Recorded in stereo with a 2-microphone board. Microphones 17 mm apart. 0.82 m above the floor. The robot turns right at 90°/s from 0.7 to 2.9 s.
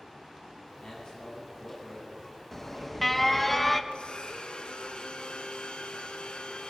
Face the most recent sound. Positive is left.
turn(degrees=65)  # may be behind; listen again after turning